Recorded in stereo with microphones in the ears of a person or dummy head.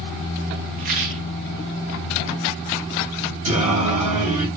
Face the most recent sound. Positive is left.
turn(degrees=-40)  # may be behind; listen again after turning